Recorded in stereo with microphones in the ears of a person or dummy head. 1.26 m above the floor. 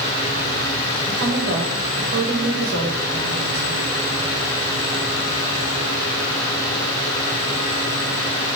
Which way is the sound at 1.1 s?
80° right.